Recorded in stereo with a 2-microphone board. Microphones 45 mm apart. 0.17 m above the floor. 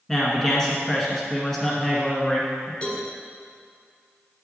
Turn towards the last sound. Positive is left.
turn(degrees=25)  # may be behind; listen again after turning